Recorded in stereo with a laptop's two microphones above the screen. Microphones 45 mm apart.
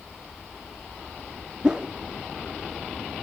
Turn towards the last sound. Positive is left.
turn(degrees=-15)  # may be behind; listen again after turning